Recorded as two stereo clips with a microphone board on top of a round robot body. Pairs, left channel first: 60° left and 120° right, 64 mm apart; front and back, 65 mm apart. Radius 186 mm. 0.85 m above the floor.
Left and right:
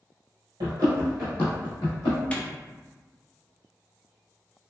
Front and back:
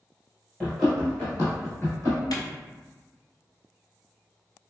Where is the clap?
10° right, 0.7 m.